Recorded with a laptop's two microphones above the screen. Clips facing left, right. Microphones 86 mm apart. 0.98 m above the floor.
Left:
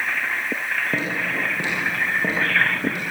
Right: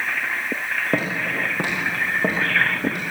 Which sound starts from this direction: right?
Footsteps, at 0.9 s.